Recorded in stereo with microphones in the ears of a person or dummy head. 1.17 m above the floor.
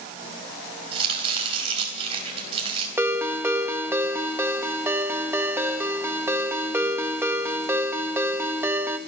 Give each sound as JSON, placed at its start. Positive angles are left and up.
{"t": 0.9, "sound": "chopping", "side_deg": -30, "distance_m": 3.5}
{"t": 3.0, "sound": "a ringtone", "side_deg": -10, "distance_m": 0.9}